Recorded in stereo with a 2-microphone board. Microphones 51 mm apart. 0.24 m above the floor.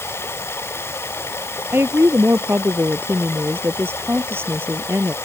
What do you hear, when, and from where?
0.0 s running water: 55° left (ahead or behind)
1.7 s a woman speaking: 45° right (ahead or behind)